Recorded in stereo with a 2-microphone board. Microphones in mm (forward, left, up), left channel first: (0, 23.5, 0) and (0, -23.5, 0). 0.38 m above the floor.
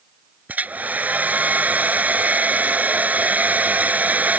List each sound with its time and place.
0.5 s a hair dryer: 35° right (ahead or behind)